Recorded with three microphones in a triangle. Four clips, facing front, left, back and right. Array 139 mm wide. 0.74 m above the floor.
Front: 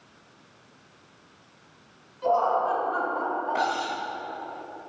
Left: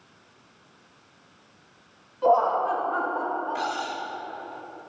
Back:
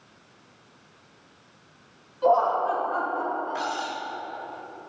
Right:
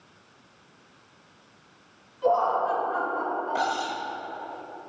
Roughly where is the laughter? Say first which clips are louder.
Left 2 dB, back 2 dB; left.